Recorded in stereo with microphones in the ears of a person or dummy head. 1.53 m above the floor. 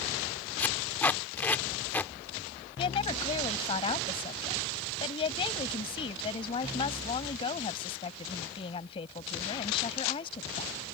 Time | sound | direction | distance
0.6 | tape being pulled | 10° left (ahead or behind) | ?
2.8 | a woman speaking | 30° left (ahead or behind) | ?